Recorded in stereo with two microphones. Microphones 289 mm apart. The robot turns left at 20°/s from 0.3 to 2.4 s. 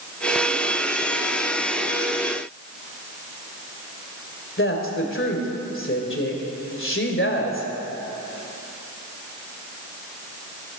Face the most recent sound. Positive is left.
turn(degrees=40)  # may be behind; listen again after turning